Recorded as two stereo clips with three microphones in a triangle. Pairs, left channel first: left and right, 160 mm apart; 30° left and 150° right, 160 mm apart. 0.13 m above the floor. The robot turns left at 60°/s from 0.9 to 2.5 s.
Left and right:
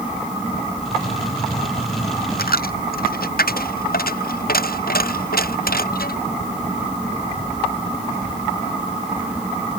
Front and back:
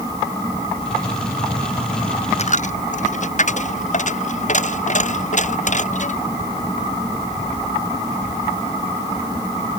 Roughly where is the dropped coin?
Left.